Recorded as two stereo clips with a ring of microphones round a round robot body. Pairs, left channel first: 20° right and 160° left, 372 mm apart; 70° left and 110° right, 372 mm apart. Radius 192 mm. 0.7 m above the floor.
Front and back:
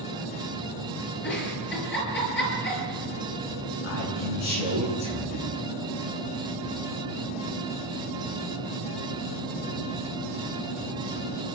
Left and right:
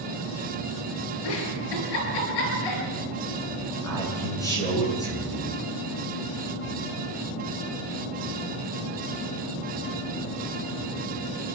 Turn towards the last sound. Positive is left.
turn(degrees=-15)